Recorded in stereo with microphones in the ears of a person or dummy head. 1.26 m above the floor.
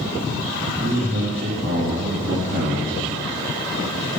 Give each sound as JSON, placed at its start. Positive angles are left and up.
{"t": 0.8, "sound": "a man speaking", "side_deg": -45, "distance_m": 1.8}